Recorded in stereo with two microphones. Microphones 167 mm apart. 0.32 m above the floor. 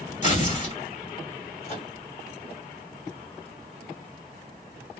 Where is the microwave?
40° left (ahead or behind), 1.7 m.